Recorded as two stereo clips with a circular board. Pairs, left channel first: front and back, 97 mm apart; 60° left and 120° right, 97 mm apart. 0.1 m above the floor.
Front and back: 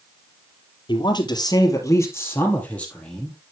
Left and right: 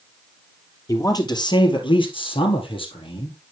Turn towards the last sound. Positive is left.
turn(degrees=85)